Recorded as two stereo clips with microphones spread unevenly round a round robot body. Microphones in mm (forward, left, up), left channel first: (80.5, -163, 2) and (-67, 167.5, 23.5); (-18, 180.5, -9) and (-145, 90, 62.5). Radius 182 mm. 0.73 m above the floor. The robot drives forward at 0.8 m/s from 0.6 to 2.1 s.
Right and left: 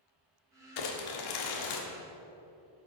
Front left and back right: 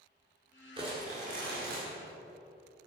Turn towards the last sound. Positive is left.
turn(degrees=-100)